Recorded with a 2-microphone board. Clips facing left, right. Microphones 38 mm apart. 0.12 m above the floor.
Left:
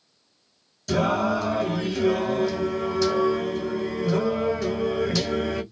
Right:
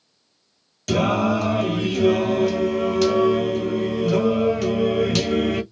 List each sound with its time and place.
0.9 s singing: 65° right (ahead or behind), 1.2 m